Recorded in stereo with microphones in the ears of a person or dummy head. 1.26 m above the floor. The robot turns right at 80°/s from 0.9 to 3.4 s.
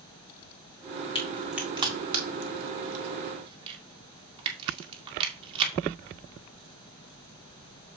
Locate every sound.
1.1 s a crack: 30° left (ahead or behind), 2 m; by 5.7 s 30° right (ahead or behind), 2 m